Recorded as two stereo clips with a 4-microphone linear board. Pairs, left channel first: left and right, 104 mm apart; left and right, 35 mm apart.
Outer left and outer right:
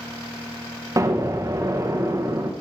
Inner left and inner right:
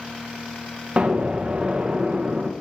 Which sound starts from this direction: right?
An explosion, at 1.0 s.